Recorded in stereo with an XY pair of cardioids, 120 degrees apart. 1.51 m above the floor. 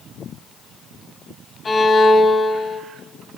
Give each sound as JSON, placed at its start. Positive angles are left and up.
{"t": 1.6, "sound": "a violin", "azimuth_deg": 30, "distance_m": 1.7}